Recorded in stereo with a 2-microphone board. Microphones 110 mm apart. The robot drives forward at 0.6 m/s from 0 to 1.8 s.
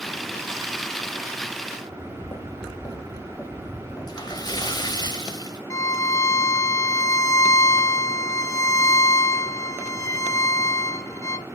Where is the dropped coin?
I don't hear a dropped coin.